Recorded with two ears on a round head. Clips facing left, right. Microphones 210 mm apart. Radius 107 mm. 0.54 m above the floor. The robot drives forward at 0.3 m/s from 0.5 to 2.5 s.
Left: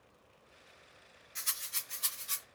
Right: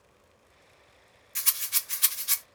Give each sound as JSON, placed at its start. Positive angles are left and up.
{"t": 1.4, "sound": "a rattle", "side_deg": -65, "distance_m": 1.0}